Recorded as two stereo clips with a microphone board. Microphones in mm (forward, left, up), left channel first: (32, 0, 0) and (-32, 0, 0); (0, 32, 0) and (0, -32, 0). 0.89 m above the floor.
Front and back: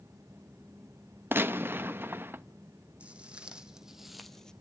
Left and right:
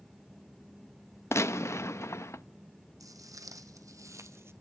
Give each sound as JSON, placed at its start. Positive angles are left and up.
{"t": 1.3, "sound": "a gunshot", "azimuth_deg": 130, "distance_m": 0.6}
{"t": 3.0, "sound": "footsteps", "azimuth_deg": -110, "distance_m": 2.5}